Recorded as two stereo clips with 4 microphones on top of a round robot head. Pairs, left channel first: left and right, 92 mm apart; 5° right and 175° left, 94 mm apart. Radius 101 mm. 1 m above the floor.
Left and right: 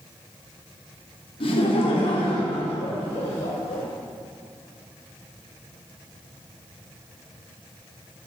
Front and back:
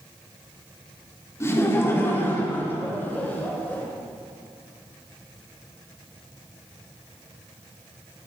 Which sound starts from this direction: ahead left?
Laughter, at 1.4 s.